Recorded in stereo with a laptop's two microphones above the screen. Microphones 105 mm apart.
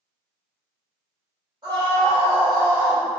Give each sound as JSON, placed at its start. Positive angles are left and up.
{"t": 1.6, "sound": "a scream", "side_deg": -55, "distance_m": 1.6}